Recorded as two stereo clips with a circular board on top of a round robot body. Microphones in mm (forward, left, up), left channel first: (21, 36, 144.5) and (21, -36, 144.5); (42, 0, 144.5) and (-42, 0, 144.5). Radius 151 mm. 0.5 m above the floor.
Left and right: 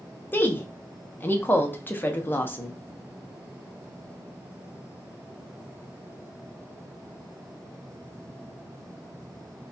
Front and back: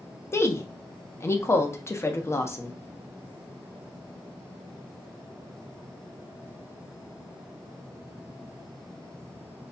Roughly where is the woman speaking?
Ahead left.